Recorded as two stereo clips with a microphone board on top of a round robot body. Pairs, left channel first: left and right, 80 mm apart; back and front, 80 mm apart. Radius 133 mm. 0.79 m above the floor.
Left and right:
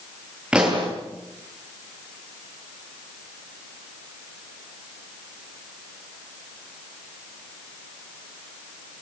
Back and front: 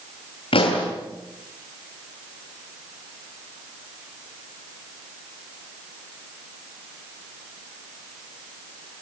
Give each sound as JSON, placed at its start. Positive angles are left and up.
{"t": 0.5, "sound": "a pop", "azimuth_deg": -170, "distance_m": 8.0}